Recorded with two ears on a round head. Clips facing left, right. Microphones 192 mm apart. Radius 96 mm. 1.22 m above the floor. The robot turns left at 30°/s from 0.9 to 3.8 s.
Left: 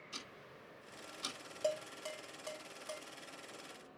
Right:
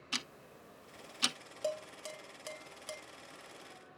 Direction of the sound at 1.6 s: 10° right (ahead or behind).